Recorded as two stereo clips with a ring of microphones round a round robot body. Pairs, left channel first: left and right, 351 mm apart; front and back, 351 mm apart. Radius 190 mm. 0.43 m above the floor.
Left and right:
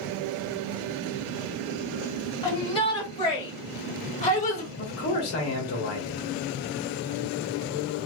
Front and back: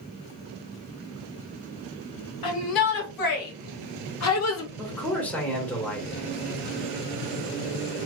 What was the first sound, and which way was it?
A shout, 15° left.